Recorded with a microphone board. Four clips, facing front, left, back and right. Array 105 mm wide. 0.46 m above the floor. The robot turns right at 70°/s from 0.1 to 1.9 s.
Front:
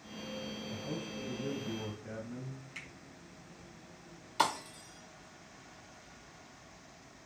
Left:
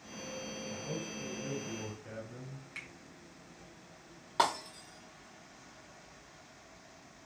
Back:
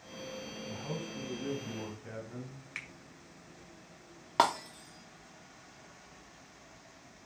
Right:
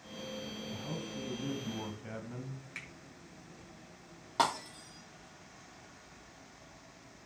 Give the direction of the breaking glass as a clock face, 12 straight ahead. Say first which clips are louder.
Even, back 4 dB; 6 o'clock.